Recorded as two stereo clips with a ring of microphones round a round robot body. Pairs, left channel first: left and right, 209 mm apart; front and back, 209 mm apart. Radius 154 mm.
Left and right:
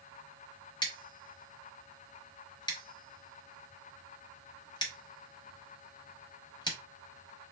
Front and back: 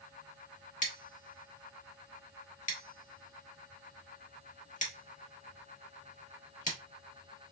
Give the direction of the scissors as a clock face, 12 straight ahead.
11 o'clock.